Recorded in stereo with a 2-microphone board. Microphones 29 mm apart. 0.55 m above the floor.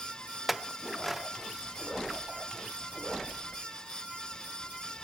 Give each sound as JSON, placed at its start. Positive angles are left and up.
{"t": 0.5, "sound": "a clink", "side_deg": 0, "distance_m": 0.6}